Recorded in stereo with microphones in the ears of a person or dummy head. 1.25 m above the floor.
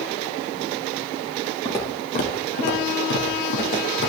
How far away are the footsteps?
About 2 m.